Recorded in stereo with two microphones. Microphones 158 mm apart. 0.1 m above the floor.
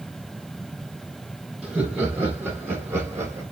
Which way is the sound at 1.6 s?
5° right (ahead or behind).